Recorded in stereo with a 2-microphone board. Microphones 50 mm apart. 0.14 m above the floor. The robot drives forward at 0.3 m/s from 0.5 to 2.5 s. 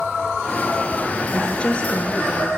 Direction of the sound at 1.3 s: 20° left (ahead or behind).